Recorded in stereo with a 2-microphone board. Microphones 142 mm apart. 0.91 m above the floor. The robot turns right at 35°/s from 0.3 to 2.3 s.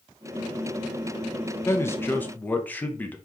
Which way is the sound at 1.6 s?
20° left (ahead or behind).